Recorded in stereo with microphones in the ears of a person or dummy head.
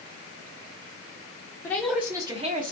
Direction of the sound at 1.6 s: 10° left (ahead or behind).